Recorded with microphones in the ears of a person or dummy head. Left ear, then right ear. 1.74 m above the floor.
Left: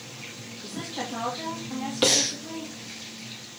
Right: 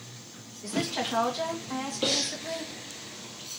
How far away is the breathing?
About 1.1 m.